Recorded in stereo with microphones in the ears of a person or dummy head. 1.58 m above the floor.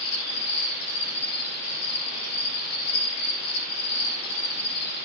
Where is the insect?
70° left (ahead or behind), 6.5 m.